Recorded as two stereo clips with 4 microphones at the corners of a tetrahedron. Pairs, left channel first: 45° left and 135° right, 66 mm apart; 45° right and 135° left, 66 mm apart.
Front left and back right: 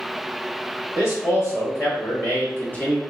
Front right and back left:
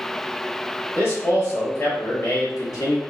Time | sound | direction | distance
0.9 | a man speaking | 10° left | 2.0 m